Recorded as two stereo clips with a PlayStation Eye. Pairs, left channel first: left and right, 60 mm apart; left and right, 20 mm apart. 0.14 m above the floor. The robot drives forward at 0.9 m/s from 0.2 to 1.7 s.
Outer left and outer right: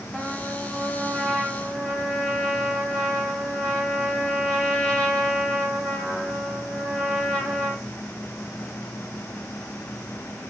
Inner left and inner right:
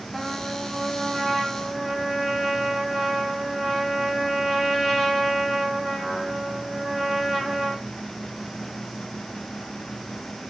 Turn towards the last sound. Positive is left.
turn(degrees=10)  # may be behind; listen again after turning